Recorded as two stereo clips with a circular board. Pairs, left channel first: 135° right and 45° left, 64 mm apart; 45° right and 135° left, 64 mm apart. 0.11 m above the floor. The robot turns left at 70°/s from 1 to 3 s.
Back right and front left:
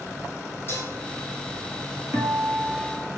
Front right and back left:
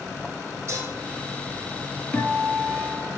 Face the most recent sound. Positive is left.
turn(degrees=-25)